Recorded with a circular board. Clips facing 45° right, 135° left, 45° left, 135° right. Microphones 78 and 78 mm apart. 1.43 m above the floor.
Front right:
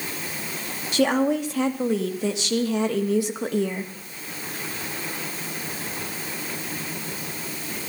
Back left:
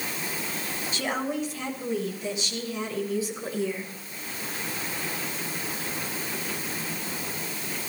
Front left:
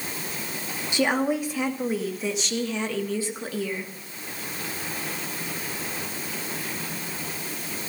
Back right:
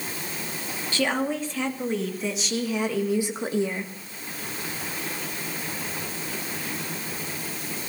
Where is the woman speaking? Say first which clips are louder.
Front right 9 dB, front left 2 dB; 30° right, 2.5 m; by 3.9 s 80° right, 1.7 m.